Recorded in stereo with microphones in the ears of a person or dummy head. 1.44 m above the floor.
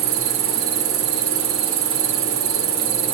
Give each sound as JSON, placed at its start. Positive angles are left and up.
{"t": 0.0, "sound": "an insect", "side_deg": -70, "distance_m": 1.9}